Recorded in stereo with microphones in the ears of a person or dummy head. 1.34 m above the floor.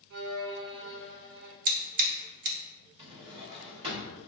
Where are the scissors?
50° right (ahead or behind), 0.8 m.